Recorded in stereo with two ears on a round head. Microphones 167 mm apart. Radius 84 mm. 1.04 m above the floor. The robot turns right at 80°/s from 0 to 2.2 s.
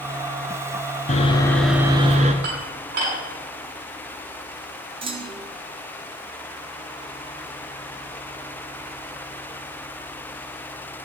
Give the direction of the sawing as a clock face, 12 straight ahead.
7 o'clock.